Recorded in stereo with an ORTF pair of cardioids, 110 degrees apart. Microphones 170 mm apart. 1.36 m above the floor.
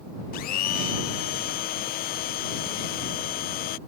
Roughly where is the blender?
Left.